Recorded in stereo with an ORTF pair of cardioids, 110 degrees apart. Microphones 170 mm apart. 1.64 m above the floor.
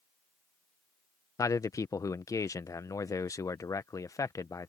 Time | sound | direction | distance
1.4 | a man speaking | 20° left | ?